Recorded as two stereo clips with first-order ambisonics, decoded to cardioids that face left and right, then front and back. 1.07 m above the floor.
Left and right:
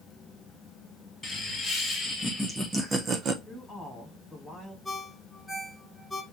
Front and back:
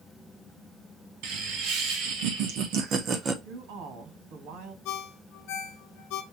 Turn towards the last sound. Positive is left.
turn(degrees=10)